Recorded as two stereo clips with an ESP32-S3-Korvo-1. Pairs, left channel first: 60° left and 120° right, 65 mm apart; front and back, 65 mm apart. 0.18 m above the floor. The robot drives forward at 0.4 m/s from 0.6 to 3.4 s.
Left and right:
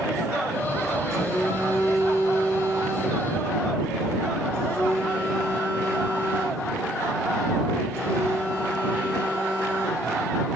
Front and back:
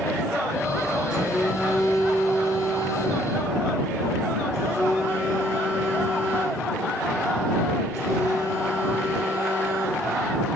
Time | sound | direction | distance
1.1 | a phone buzzing | 105° left | 3 m